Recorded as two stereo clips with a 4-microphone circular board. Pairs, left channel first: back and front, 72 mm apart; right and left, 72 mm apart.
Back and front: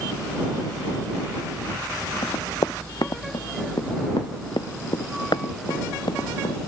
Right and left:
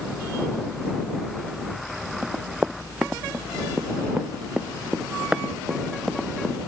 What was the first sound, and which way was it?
Running footsteps, 165° left.